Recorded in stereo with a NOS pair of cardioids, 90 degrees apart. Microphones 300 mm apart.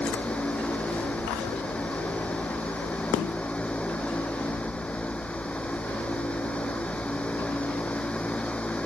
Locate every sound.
0.0 s a fan: 5° left